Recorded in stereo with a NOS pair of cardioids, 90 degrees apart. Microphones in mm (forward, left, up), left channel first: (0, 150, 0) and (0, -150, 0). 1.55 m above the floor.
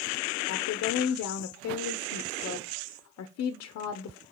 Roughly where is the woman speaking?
Ahead left.